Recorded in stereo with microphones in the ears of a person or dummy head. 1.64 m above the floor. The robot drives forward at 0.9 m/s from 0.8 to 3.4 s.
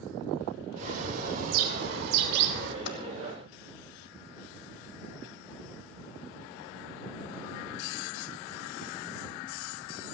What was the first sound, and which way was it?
A bird, 40° right (ahead or behind).